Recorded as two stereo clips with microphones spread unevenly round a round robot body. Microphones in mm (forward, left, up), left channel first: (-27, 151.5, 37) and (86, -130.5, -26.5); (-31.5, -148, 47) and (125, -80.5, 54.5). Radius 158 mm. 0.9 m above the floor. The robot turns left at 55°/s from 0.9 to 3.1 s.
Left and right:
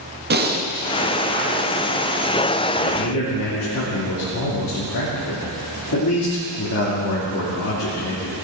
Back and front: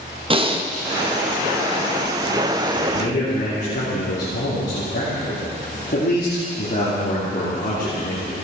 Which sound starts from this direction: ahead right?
Breathing, at 0.3 s.